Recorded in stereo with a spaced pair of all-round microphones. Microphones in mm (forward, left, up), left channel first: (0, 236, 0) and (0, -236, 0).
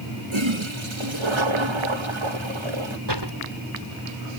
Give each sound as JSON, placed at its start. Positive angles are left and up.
{"t": 0.3, "sound": "a toilet flushing", "side_deg": -80}
{"t": 3.1, "sound": "a door slam", "side_deg": -60}